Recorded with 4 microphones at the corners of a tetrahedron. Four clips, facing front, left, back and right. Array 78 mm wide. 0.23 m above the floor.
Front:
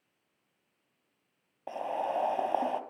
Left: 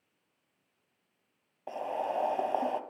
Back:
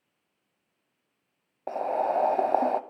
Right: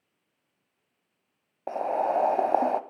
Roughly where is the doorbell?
I don't hear a doorbell.